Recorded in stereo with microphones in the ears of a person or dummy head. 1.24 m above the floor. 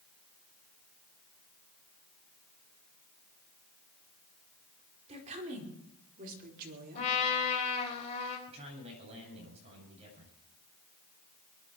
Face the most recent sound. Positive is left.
turn(degrees=-35)  # may be behind; listen again after turning